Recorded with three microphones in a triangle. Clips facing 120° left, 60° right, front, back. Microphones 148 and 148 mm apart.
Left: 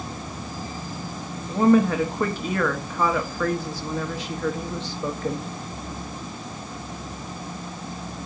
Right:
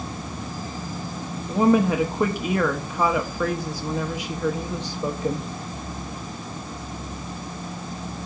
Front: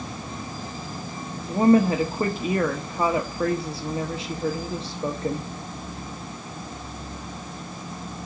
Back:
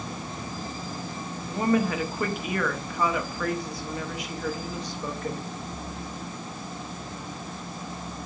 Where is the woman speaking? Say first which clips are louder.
Left 1 dB, front 7 dB; 5° left, 0.9 m.